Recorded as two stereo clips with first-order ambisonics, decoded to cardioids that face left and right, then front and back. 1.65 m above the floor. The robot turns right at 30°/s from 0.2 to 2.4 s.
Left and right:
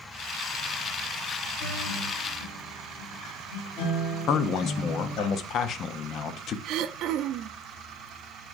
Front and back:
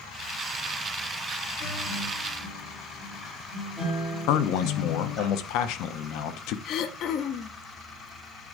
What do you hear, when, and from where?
1.6 s a guitar: 45° left, 3.5 m; by 5.3 s 70° left, 3.5 m
4.3 s a man speaking: 35° left, 0.7 m
6.7 s throat clearing: 45° right, 0.5 m